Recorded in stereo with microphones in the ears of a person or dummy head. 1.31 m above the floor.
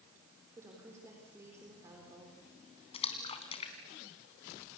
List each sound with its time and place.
0.6 s a woman speaking: 20° right (ahead or behind), 4 m
2.9 s a splash: 35° left (ahead or behind), 2.5 m